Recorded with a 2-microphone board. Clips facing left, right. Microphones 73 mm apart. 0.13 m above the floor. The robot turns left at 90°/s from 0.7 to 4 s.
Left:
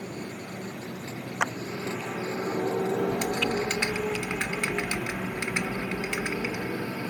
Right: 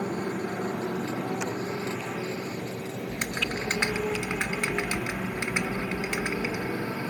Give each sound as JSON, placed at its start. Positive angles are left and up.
{"t": 0.0, "sound": "a motorcycle", "side_deg": -50}
{"t": 1.4, "sound": "a clap", "side_deg": 75}
{"t": 3.1, "sound": "typing on a keyboard", "azimuth_deg": -80}